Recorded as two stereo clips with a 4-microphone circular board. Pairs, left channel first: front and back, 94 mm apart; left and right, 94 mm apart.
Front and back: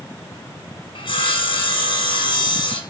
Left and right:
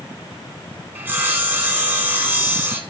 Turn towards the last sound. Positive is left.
turn(degrees=-25)